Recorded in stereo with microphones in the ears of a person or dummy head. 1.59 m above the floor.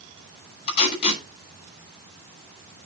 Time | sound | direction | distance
0.7 | tape being pulled | 35° left (ahead or behind) | 9 m